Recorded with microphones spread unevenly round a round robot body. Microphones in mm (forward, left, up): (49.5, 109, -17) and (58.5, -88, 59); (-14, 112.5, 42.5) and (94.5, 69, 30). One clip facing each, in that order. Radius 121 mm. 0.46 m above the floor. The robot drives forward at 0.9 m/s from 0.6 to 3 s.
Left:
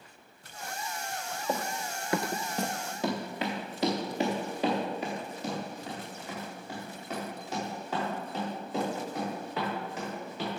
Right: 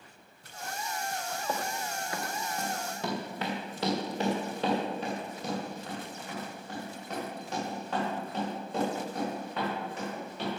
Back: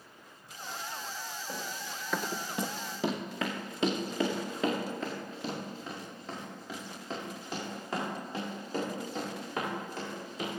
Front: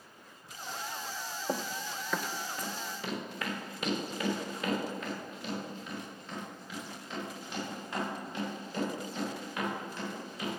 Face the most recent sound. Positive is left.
turn(degrees=180)